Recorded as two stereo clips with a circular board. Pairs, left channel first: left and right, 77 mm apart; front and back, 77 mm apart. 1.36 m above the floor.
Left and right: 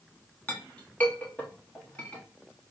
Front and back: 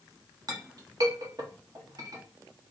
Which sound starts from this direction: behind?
A clink, at 0.5 s.